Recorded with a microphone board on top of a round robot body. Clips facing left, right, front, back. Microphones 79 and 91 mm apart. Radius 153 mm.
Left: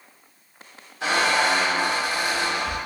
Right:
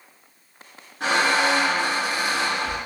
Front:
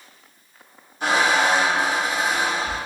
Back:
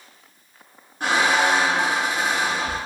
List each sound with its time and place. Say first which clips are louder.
1.0 s a squeak: right 1 dB, even; 140° right, 0.9 m